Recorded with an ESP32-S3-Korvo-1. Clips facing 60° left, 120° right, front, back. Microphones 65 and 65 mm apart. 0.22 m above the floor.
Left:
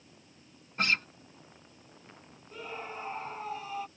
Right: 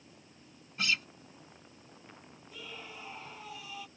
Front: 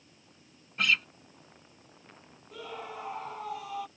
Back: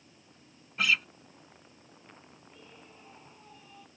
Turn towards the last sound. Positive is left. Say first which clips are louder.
# left 7 dB, front 17 dB
turn(degrees=10)